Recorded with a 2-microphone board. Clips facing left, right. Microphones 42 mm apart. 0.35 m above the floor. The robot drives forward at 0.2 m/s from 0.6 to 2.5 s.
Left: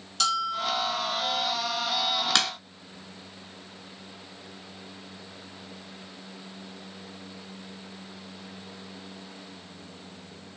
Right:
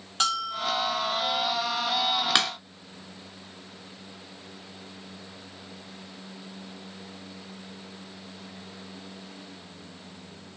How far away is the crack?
About 0.7 m.